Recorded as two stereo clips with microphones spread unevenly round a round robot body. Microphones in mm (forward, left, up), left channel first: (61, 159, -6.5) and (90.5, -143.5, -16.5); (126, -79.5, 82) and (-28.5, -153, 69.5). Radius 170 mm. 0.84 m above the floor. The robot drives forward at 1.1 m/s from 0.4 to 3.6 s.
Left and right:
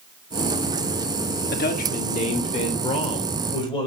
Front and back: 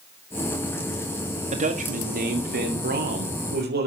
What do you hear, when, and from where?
1.5 s a man speaking: 160° left, 1.6 m; by 3.9 s 170° left, 4 m